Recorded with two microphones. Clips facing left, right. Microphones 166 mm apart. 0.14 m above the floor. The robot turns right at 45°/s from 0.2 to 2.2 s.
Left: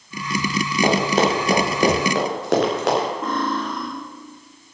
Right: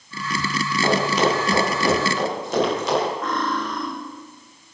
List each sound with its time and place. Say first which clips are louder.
0.8 s running footsteps: left 1 dB; 35° left (ahead or behind), 8 m; by 3.1 s 65° left (ahead or behind), 8.5 m
3.2 s cutlery clinking: left 1 dB; 30° left (ahead or behind), 5.5 m